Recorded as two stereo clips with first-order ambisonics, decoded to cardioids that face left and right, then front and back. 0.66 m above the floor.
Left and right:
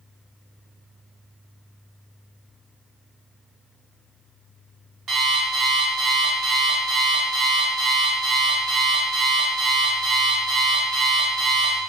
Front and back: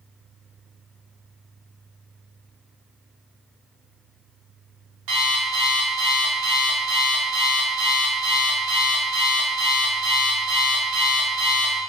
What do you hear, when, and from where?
5.1 s an alarm clock: 155° right, 1.1 m